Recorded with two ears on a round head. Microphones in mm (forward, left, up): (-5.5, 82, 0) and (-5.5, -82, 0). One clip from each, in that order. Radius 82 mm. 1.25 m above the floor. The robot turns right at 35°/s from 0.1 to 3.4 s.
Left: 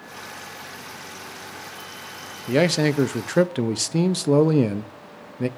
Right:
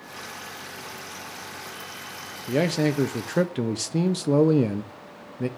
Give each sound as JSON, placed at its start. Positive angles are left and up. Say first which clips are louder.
{"t": 2.5, "sound": "a man speaking", "louder": "left 4 dB", "side_deg": 25, "distance_m": 0.5}